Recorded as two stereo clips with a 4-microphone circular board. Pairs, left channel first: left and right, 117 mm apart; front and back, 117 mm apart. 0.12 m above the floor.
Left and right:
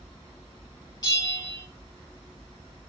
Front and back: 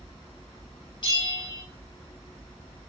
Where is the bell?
40° left, 2.5 m.